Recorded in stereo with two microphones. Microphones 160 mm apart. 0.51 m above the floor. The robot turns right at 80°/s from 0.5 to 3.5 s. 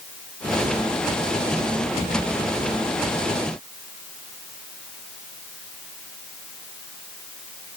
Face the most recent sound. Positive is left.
No sound to turn to.